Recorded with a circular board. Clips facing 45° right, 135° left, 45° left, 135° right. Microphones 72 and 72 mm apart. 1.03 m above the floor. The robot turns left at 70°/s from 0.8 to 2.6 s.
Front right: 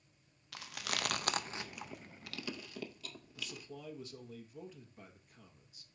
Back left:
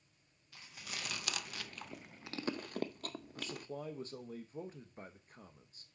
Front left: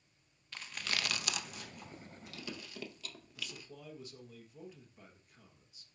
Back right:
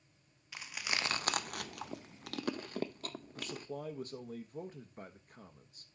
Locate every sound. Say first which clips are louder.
0.5 s chewing: front right 7 dB, back right 1 dB; 55° right, 0.6 m; by 3.7 s straight behind, 0.6 m
3.4 s a man speaking: back left 3 dB, back right 7 dB; 175° right, 0.9 m